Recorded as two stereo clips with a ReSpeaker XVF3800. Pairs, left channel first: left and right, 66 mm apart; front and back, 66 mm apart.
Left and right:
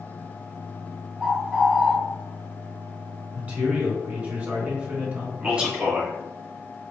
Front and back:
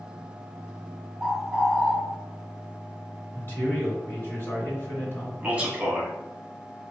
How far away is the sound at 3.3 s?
About 1.9 m.